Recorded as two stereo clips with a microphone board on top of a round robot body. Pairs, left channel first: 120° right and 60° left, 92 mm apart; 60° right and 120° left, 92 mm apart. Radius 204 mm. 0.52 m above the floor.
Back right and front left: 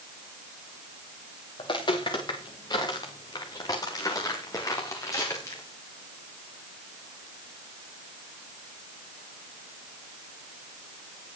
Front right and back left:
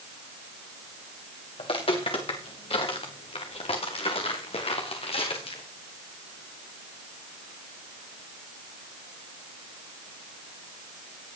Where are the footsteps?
80° right, 6 m; by 5.6 s 60° right, 8.5 m.